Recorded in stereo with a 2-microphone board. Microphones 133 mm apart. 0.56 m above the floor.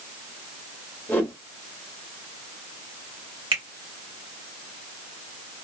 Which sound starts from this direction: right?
A finger snap, at 3.5 s.